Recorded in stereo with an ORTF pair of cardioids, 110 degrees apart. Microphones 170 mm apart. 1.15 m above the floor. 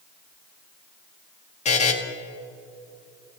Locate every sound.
1.6 s a buzzer: 40° left, 2 m